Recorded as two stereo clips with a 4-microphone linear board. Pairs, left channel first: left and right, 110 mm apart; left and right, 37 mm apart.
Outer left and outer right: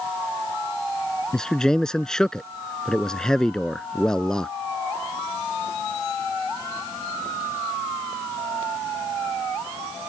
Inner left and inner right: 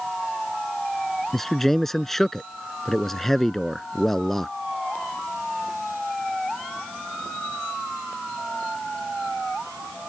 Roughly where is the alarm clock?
No alarm clock in this recording.